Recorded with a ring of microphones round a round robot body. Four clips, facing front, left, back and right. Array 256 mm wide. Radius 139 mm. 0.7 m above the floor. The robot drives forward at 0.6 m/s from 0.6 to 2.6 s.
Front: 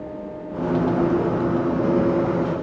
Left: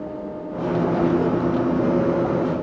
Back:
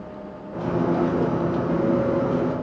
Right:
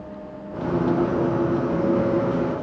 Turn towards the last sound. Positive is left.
No sound to turn to.